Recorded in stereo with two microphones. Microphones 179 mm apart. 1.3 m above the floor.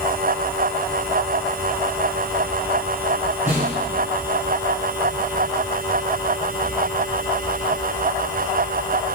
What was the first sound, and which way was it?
A snare drum, 15° right (ahead or behind).